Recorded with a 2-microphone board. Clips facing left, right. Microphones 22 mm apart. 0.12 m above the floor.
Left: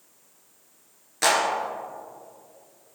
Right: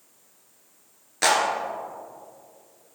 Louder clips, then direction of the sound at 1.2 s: Right 1 dB; 10° right (ahead or behind).